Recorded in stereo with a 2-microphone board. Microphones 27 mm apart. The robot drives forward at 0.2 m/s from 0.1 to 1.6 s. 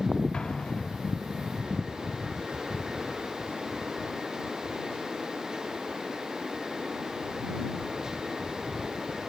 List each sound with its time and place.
0.3 s an explosion: 35° left (ahead or behind), 1.4 m